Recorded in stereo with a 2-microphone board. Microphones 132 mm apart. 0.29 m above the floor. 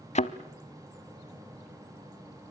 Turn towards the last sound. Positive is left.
turn(degrees=60)  # may be behind; listen again after turning